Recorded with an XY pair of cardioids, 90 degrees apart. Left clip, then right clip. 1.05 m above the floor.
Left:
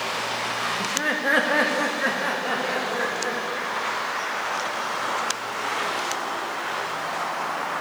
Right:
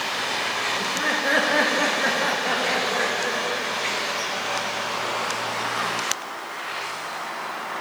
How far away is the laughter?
About 1.3 m.